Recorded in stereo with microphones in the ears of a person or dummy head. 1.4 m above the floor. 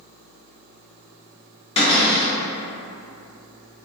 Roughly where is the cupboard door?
Left.